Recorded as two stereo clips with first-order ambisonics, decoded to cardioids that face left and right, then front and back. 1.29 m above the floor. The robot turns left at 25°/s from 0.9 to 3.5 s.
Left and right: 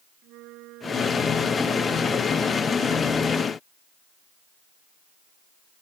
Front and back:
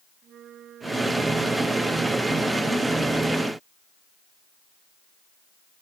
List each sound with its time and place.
0.2 s a flute: 125° right; by 3.2 s 175° left